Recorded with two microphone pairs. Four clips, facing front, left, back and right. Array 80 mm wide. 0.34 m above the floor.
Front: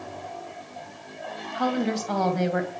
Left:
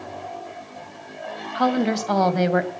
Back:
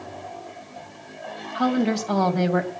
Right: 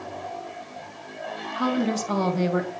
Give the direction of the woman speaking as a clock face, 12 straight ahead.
9 o'clock.